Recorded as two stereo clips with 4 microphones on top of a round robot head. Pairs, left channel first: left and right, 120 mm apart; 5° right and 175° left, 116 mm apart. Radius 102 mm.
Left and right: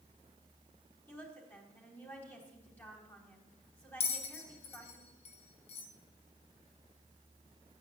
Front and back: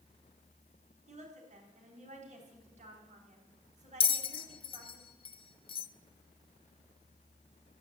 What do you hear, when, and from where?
1.1 s a woman speaking: 160° left, 3.5 m
4.0 s a bell: 40° left, 0.7 m